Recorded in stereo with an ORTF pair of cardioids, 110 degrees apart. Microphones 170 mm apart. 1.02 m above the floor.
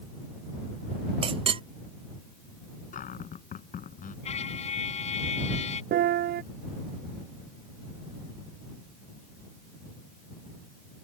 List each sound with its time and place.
1.2 s a clink: 30° right
2.9 s a cupboard door: 50° left
4.2 s a trumpet: 40° left
5.9 s a piano: 70° right